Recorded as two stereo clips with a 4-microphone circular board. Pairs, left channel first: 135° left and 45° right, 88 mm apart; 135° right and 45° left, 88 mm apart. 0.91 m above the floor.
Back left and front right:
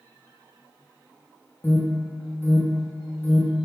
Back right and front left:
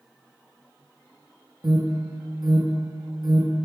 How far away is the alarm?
About 1.2 m.